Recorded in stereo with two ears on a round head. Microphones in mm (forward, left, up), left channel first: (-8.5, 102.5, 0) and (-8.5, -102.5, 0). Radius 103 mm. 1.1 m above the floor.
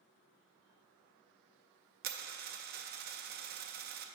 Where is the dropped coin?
40° right (ahead or behind), 0.5 m.